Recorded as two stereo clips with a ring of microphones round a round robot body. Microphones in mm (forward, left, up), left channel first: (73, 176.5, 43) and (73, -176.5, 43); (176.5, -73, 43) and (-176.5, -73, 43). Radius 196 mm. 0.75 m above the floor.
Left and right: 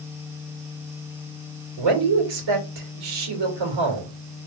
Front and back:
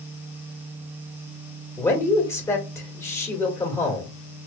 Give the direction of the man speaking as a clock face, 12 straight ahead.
3 o'clock.